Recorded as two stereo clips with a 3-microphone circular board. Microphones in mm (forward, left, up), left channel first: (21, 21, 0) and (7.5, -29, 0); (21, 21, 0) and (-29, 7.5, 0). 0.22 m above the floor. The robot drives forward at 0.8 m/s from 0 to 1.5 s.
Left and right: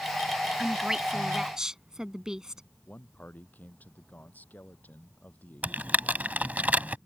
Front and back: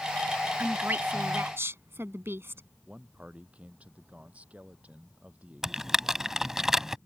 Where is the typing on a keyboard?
95° right.